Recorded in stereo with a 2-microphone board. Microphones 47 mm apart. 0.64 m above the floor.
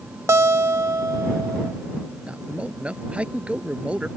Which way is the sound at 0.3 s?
75° right (ahead or behind).